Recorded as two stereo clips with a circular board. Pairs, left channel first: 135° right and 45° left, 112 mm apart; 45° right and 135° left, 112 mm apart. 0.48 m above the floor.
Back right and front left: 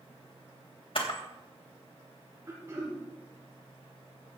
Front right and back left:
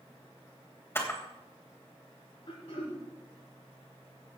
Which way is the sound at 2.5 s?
20° right.